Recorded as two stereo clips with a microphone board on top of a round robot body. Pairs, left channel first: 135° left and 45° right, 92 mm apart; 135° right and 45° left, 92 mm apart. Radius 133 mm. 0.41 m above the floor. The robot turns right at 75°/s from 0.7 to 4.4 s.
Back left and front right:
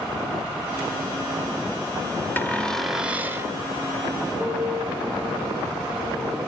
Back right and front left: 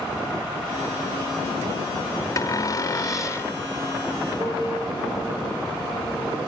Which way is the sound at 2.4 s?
170° right.